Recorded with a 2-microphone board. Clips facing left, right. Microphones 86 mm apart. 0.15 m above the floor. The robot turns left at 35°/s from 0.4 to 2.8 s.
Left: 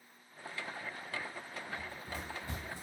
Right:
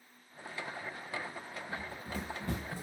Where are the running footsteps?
60° right (ahead or behind), 1.5 m; by 2.8 s 50° right (ahead or behind), 0.7 m.